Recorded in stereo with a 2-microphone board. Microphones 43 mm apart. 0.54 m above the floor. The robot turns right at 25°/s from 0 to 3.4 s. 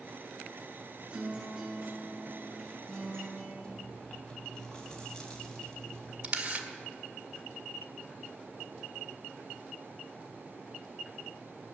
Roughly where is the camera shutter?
Right.